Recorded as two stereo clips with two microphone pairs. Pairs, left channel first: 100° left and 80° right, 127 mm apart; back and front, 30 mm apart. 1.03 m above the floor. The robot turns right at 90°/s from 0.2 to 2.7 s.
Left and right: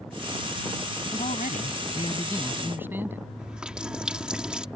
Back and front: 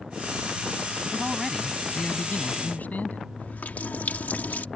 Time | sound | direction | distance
1.1 | a man speaking | 60° left | ?
3.4 | a running tap | 165° right | ?